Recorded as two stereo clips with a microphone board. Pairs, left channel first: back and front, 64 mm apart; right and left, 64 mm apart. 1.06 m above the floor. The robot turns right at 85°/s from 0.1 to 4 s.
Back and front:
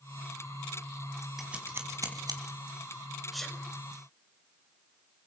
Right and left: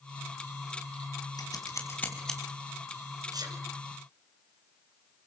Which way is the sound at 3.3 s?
85° left.